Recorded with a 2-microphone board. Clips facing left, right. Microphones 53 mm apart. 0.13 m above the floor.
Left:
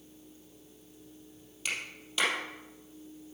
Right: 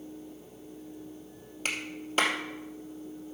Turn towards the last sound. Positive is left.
turn(degrees=-40)  # may be behind; listen again after turning